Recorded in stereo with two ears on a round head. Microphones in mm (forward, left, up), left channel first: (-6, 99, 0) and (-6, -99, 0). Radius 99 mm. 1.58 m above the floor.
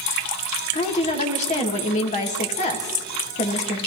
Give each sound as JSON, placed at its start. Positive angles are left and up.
{"t": 0.7, "sound": "a woman speaking", "side_deg": 35, "distance_m": 2.0}